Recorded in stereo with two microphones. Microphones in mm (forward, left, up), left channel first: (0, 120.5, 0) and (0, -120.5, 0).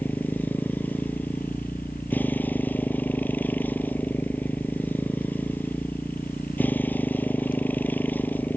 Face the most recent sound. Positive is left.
turn(degrees=10)  # may be behind; listen again after turning